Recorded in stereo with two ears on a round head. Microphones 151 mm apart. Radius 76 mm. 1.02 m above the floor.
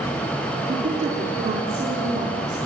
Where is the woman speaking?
40° right (ahead or behind), 3.5 m.